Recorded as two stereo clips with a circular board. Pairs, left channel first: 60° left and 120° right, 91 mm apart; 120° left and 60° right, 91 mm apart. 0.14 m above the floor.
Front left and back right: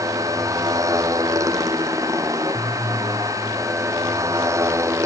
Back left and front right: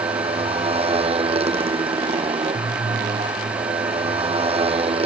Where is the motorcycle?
65° right; by 5.1 s 60° right.